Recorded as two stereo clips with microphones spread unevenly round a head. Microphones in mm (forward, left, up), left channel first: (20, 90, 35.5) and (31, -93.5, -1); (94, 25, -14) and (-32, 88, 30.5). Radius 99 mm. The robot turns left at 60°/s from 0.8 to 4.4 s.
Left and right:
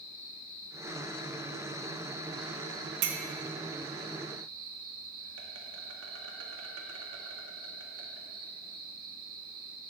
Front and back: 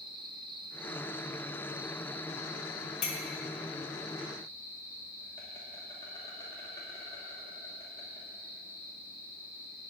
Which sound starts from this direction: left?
An insect, at 0.0 s.